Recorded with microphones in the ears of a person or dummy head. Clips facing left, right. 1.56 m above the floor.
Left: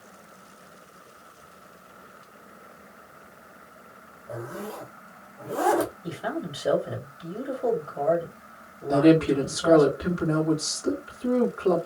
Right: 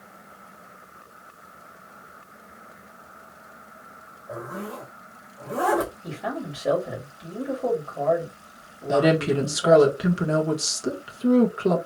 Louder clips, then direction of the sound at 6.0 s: Even; 5° left (ahead or behind).